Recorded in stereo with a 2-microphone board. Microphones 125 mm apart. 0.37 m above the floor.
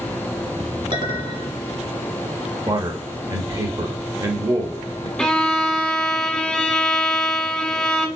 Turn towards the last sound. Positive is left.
turn(degrees=5)  # may be behind; listen again after turning